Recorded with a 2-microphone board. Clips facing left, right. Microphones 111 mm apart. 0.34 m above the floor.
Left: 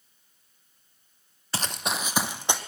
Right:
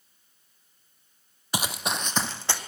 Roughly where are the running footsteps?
Centre.